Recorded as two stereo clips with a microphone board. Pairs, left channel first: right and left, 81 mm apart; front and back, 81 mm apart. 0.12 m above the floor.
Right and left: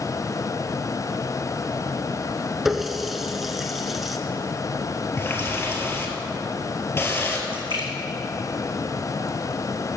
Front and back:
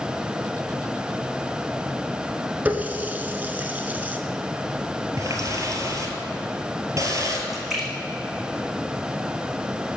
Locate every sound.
2.6 s a running tap: 175° left, 0.8 m
5.2 s a running tap: 145° right, 1.6 m
7.5 s a splash: 95° left, 2 m